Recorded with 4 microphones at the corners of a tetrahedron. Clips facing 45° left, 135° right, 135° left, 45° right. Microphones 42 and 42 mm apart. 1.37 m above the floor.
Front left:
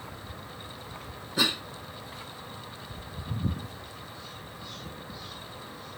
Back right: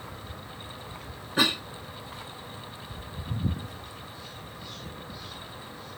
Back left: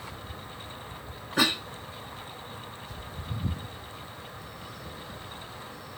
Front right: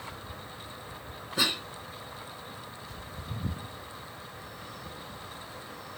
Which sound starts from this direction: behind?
A cough, at 1.4 s.